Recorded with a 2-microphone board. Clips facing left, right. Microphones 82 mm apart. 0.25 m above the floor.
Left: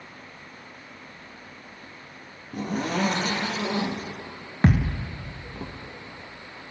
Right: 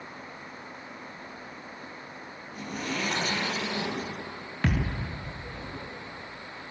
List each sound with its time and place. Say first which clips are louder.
2.5 s a zipper: left 7 dB; 60° left (ahead or behind), 6.5 m
4.6 s a thud: left 6 dB; 30° left (ahead or behind), 2.5 m